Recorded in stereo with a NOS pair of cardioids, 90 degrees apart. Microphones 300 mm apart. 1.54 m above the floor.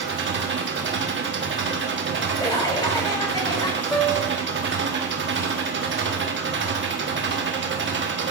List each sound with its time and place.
0.0 s an engine running: 40° right, 1.1 m
2.4 s laughter: 15° left, 3 m
3.9 s a piano: 5° left, 1.0 m